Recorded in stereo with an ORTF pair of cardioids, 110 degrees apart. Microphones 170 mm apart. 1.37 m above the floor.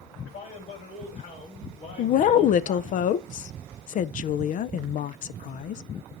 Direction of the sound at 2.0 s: 50° left.